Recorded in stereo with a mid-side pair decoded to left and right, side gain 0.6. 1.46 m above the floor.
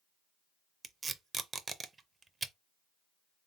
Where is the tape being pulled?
25° right, 0.5 m.